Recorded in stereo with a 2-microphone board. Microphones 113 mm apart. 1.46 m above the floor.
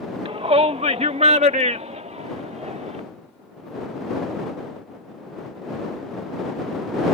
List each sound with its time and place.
0.2 s a shout: 55° right (ahead or behind); by 3.0 s 85° right